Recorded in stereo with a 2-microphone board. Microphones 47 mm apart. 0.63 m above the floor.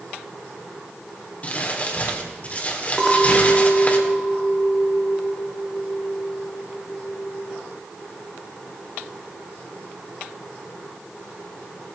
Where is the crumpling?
30° left (ahead or behind), 2.5 m.